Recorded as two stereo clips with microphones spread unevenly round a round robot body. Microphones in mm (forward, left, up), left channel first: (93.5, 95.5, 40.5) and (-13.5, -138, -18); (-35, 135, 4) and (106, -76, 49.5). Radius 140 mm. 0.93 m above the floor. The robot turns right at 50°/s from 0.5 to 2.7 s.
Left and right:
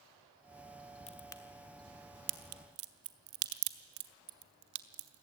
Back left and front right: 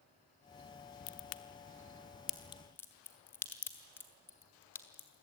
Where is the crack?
130° left, 1.0 m; by 5.2 s 150° right, 1.0 m.